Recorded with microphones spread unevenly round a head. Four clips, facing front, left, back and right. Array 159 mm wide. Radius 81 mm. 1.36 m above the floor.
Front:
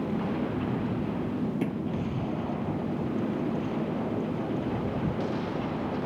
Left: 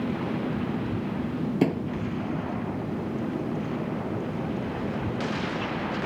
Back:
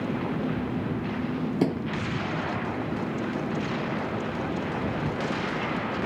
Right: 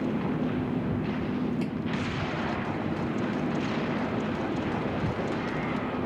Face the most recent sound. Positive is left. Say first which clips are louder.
# left 6 dB, back 4 dB
turn(degrees=130)